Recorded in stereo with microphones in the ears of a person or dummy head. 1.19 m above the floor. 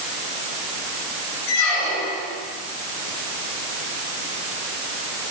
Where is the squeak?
60° left (ahead or behind), 4 m.